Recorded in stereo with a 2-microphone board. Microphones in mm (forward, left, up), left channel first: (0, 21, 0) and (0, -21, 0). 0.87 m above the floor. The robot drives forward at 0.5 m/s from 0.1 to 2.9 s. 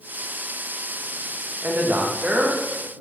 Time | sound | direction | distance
1.6 | a man speaking | 35° right (ahead or behind) | 0.5 m